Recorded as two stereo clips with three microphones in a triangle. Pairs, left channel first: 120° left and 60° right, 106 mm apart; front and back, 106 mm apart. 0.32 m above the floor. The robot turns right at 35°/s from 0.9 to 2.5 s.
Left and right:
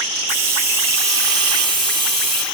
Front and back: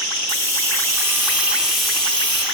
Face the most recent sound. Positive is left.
turn(degrees=-65)